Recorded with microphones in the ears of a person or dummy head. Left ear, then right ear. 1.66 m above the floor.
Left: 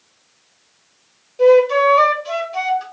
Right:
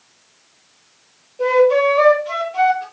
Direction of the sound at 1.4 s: 65° left (ahead or behind).